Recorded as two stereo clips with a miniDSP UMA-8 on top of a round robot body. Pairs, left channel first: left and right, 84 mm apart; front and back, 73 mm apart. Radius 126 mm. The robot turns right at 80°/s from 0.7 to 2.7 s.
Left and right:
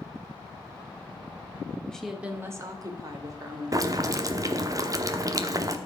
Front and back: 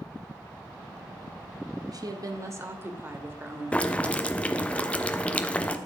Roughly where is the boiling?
Ahead right.